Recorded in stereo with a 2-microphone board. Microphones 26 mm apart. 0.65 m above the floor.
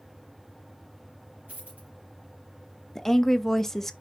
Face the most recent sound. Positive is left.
turn(degrees=15)  # may be behind; listen again after turning